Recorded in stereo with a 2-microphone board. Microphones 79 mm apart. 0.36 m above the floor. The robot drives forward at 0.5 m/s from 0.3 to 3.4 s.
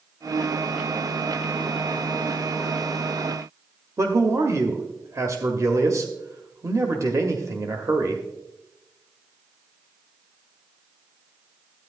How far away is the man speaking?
About 1.0 m.